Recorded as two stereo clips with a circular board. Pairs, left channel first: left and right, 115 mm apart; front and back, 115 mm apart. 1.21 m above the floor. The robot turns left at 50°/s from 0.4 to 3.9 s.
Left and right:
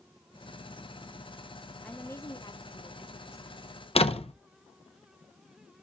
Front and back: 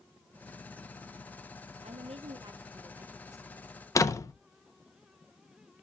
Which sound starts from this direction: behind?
A woman speaking, at 1.8 s.